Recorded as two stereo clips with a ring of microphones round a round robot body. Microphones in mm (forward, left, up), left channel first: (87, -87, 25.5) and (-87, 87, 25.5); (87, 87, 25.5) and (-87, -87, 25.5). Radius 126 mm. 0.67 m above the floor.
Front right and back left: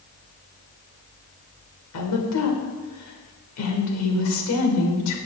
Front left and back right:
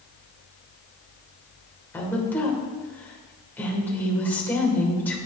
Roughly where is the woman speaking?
Ahead right.